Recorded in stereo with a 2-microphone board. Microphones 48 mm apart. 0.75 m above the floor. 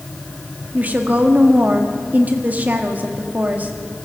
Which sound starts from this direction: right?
A woman speaking, at 0.7 s.